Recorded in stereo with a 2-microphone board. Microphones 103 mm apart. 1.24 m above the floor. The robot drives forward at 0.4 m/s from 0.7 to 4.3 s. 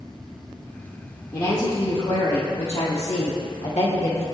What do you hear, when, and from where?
1.3 s a woman speaking: 60° left (ahead or behind), 1.5 m; by 4.2 s 70° left (ahead or behind), 1.3 m